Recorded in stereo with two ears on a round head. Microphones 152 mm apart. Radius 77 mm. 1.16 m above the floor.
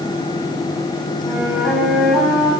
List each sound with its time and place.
1.2 s a flute: centre (ahead or behind), 5 m